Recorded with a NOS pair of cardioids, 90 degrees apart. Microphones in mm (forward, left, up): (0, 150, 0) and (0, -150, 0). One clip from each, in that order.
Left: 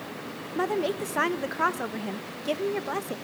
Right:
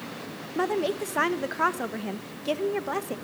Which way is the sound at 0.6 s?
5° right.